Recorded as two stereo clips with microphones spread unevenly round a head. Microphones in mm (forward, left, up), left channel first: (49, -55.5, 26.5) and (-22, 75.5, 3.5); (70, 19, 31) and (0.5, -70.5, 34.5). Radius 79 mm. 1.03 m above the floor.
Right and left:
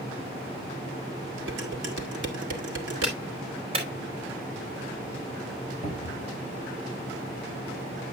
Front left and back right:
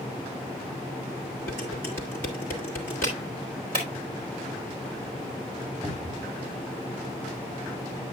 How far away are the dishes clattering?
About 1.9 m.